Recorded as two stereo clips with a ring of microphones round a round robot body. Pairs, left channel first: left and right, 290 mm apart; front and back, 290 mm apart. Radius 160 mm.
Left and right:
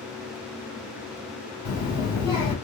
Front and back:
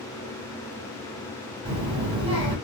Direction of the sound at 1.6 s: 105° left.